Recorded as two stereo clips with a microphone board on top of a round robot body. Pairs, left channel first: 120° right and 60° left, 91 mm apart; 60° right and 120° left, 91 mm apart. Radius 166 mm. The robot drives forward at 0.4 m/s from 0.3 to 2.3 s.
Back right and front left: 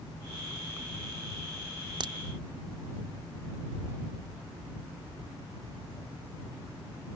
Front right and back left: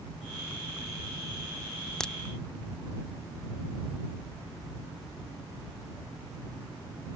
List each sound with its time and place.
2.0 s a crack: 20° left; by 2.1 s 25° left